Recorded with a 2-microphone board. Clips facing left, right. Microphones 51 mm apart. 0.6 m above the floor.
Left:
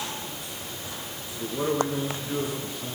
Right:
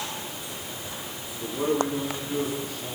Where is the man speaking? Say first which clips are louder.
Right 1 dB; 20° left (ahead or behind), 8 m.